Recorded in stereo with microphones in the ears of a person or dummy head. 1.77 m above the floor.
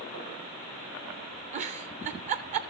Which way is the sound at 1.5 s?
35° right (ahead or behind).